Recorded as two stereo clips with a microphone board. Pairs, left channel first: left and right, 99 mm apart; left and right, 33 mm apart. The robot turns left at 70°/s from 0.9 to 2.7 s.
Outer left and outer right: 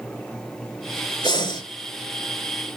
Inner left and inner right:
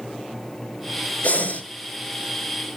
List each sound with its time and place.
1.2 s breathing: 55° left (ahead or behind), 2 m; by 1.6 s 35° left (ahead or behind), 2 m